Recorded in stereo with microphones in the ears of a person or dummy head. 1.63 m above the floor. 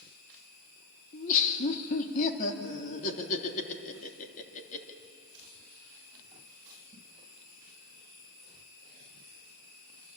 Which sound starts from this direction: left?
Laughter, at 1.1 s.